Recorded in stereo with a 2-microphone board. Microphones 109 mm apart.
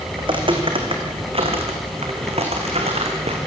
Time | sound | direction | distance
0.2 | footsteps | 50° right (ahead or behind) | 3.5 m